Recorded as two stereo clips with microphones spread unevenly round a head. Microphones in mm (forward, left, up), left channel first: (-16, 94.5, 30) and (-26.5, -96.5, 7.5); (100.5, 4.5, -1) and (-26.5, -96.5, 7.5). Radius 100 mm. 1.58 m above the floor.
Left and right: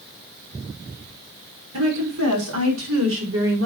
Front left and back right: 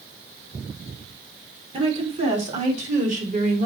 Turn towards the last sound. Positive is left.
turn(degrees=-105)